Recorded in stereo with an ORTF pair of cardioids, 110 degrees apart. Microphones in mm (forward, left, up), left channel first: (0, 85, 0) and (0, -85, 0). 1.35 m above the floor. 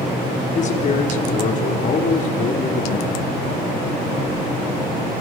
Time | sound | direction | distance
0.6 | a man speaking | 45° left | 5 m